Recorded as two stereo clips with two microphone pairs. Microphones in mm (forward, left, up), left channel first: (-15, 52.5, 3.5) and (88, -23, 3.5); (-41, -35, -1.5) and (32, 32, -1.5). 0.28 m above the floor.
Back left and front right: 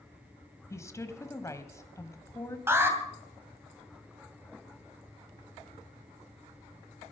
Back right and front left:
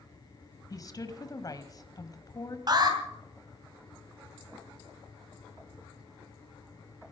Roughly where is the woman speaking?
Behind.